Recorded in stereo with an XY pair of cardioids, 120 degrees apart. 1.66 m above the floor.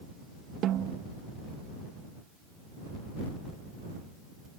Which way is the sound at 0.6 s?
65° right.